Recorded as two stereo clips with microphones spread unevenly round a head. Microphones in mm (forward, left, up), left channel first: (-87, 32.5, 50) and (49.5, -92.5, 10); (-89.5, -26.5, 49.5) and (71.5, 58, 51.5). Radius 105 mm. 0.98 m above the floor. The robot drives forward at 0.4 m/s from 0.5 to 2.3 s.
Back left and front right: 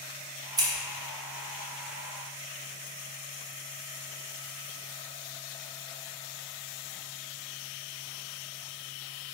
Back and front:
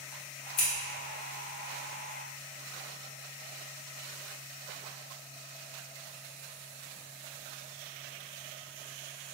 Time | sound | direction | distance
0.6 | scissors | 115° right | 0.9 m